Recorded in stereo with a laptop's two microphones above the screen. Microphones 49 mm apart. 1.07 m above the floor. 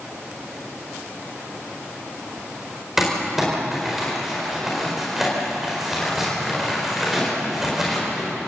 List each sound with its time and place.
3.0 s crumpling: 5° right (ahead or behind), 5 m